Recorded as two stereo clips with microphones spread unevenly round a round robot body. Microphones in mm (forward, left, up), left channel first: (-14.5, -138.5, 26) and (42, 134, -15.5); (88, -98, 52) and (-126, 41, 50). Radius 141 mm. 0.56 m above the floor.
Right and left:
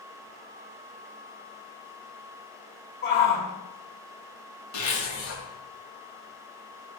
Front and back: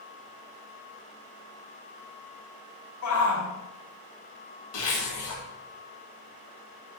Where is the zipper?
60° right, 2.0 m.